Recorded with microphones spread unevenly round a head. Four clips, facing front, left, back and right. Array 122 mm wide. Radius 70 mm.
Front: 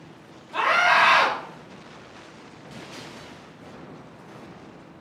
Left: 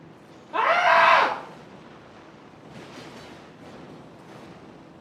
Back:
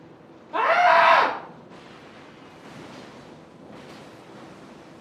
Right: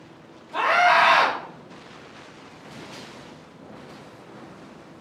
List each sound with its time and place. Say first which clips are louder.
0.5 s a scream: even, back 3 dB; 140° left, 3 m